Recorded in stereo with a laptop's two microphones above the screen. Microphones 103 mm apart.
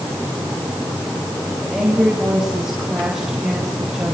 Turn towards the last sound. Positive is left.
turn(degrees=-5)  # may be behind; listen again after turning